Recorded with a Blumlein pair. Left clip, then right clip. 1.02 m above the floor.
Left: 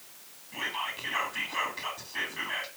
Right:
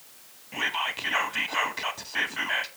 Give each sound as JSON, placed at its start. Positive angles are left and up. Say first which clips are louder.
{"t": 0.5, "sound": "whispering", "louder": "right 5 dB", "azimuth_deg": -25, "distance_m": 1.0}